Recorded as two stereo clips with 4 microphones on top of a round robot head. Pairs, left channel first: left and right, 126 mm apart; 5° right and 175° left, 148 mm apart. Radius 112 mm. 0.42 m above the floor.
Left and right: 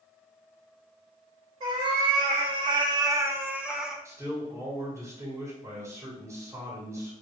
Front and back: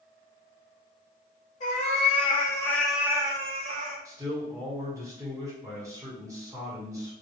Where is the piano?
I don't hear a piano.